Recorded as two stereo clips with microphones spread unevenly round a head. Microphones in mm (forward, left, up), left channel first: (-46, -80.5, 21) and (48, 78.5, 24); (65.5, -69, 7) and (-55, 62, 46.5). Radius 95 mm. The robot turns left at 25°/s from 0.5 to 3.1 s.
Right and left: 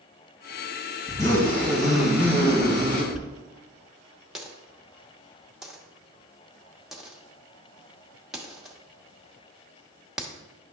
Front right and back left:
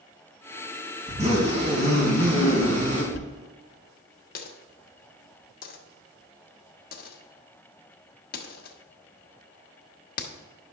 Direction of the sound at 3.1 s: 25° right.